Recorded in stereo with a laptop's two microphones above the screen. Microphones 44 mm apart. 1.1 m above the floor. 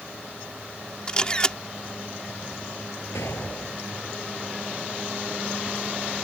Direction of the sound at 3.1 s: 75° left (ahead or behind).